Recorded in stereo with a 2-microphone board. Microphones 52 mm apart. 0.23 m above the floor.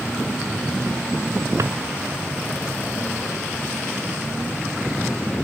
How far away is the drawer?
About 0.6 m.